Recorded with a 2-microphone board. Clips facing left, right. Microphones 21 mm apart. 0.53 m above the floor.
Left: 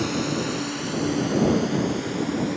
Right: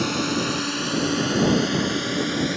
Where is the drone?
20° right (ahead or behind); by 2.6 s 45° right (ahead or behind).